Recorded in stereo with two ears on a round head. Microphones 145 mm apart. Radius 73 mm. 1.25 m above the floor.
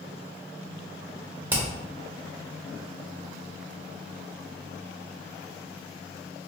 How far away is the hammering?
About 0.6 m.